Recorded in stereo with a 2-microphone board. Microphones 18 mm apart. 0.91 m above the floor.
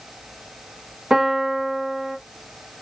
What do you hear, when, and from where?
1.1 s a piano: 55° right (ahead or behind), 1.4 m